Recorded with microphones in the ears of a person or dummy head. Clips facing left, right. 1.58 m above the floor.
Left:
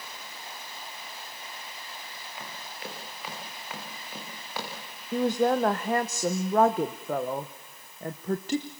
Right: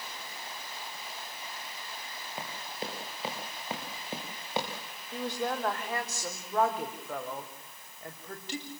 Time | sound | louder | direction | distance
2.4 | running footsteps | right 3 dB | 30° right (ahead or behind) | 8 m
5.1 | a woman speaking | left 10 dB | 40° left (ahead or behind) | 1.1 m